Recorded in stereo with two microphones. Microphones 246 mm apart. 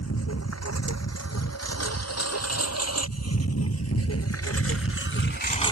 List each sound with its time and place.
0.0 s a lawn mower: 80° left; by 5.7 s 20° left (ahead or behind)